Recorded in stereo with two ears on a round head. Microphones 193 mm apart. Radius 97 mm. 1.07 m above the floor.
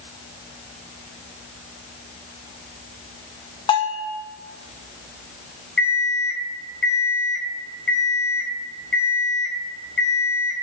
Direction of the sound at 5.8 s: 5° left (ahead or behind).